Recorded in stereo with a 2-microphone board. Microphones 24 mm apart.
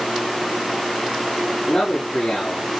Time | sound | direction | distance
1.7 | a man speaking | 55° left (ahead or behind) | 4.5 m